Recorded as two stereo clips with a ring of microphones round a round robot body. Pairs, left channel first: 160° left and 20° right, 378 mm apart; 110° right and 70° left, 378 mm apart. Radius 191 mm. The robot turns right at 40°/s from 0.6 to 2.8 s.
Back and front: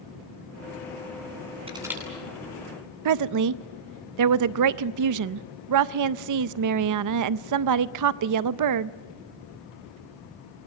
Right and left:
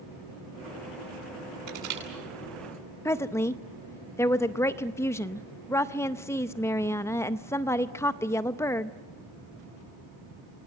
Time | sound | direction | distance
1.7 | crushing | 55° left | 9 m
3.0 | a woman speaking | 30° right | 0.5 m